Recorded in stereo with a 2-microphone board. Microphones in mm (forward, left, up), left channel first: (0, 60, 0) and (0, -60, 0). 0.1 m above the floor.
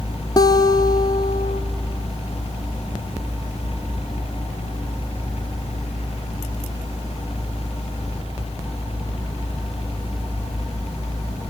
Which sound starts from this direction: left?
A guitar, at 0.4 s.